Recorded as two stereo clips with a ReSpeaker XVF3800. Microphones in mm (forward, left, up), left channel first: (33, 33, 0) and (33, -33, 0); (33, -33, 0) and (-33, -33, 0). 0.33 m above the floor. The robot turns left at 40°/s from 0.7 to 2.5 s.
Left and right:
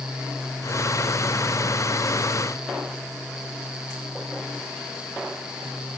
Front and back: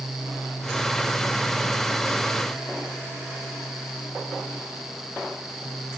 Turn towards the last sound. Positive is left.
No sound to turn to.